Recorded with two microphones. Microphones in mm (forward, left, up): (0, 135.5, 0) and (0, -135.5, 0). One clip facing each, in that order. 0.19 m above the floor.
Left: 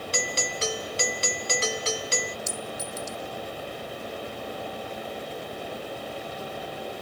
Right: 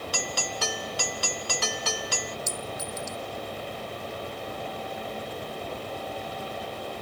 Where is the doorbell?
25° left (ahead or behind).